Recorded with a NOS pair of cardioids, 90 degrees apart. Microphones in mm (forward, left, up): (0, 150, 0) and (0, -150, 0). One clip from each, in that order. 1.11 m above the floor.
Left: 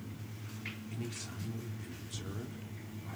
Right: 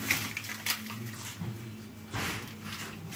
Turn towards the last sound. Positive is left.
turn(degrees=30)